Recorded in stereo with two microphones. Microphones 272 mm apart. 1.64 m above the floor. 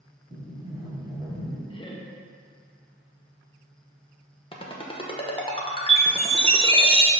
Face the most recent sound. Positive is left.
turn(degrees=-20)  # may be behind; listen again after turning